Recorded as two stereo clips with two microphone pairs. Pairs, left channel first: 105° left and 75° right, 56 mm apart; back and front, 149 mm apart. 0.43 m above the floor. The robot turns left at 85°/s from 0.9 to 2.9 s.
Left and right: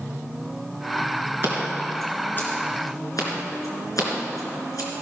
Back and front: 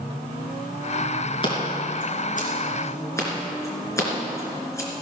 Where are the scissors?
125° right, 3 m; by 4.9 s 110° left, 3 m.